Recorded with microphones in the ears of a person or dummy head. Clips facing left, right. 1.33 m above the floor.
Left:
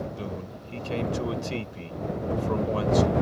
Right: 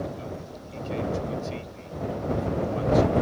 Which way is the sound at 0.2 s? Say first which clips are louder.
Left 1 dB; 80° left.